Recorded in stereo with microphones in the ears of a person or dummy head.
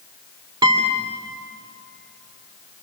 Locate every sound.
0.6 s a guitar: 25° right (ahead or behind), 2.5 m